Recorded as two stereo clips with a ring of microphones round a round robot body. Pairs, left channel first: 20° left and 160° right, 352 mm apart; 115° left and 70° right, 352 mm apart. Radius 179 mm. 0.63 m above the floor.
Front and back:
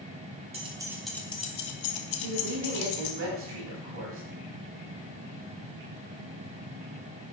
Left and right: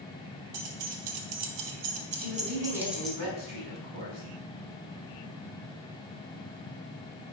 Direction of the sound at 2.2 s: 105° right.